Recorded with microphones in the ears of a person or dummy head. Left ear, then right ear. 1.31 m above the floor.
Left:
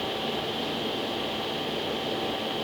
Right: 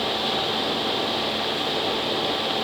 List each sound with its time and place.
Only background noise.